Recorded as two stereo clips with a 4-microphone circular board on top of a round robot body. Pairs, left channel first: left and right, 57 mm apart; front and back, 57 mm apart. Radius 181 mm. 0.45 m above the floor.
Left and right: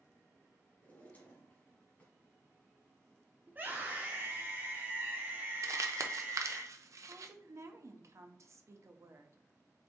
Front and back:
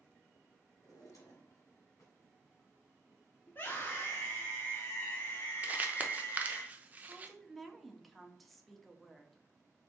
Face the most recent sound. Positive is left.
turn(degrees=-90)